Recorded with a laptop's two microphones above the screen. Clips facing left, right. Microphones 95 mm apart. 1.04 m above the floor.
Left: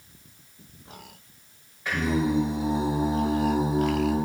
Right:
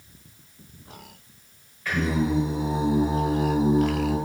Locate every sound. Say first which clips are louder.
1.9 s singing: even; 20° left (ahead or behind), 1.1 m